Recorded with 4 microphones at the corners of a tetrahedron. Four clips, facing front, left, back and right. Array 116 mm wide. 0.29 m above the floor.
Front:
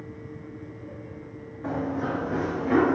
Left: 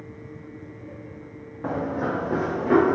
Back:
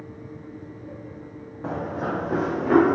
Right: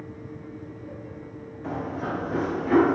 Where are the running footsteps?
115° left, 0.9 m; by 2.9 s 145° left, 1.3 m.